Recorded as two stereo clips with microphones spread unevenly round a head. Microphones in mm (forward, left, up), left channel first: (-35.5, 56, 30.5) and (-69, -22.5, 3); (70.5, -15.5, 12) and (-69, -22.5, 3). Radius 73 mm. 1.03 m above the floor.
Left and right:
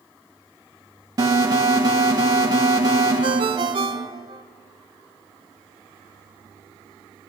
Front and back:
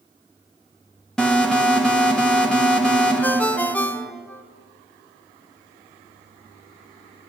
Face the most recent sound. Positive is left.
turn(degrees=-75)